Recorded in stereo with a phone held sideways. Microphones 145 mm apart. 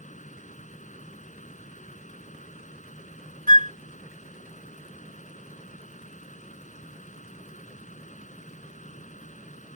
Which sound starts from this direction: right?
A flute, at 3.5 s.